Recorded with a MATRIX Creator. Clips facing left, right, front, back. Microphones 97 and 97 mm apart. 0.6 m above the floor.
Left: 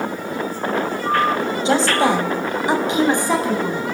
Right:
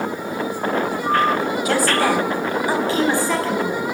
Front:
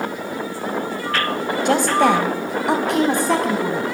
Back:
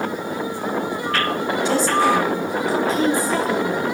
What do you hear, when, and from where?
1.6 s a woman speaking: 25° left, 4.5 m; by 3.8 s 15° left, 6.5 m